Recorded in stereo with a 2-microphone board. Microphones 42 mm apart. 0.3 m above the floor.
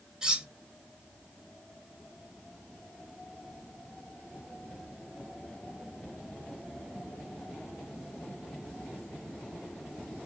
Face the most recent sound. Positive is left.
turn(degrees=-20)  # may be behind; listen again after turning